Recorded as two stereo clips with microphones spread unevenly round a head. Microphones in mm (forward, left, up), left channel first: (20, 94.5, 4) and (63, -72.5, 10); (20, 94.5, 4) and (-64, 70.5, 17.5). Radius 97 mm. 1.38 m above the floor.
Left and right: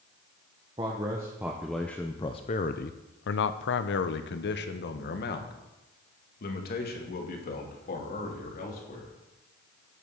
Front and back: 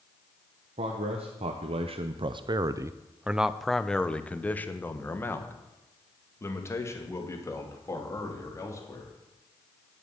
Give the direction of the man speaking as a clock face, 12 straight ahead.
5 o'clock.